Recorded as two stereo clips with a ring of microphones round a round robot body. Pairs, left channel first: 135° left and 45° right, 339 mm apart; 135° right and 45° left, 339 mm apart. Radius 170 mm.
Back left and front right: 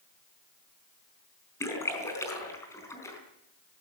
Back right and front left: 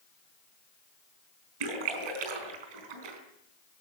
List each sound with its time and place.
1.6 s a splash: 55° left, 4 m